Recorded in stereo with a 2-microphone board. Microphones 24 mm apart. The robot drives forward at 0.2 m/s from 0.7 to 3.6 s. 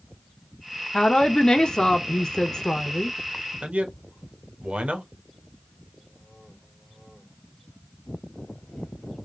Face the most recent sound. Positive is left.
turn(degrees=-60)  # may be behind; listen again after turning